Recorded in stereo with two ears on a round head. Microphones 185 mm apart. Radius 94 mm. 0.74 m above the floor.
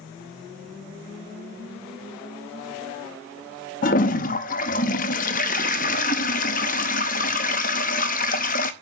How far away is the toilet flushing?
About 0.8 m.